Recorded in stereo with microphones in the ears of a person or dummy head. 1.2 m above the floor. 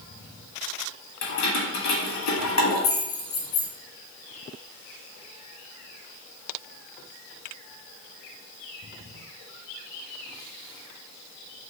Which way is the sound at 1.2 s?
85° left.